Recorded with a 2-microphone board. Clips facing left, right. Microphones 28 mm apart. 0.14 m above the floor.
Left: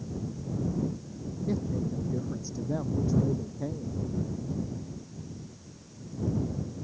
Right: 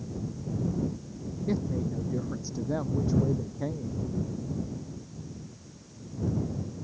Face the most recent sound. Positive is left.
turn(degrees=-30)  # may be behind; listen again after turning